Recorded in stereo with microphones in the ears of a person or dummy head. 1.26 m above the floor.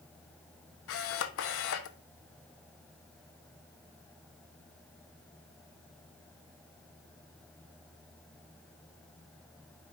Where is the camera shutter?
70° left (ahead or behind), 1.0 m.